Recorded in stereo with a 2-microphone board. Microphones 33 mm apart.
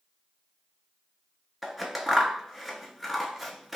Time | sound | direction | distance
1.6 | scissors | 5° right (ahead or behind) | 0.7 m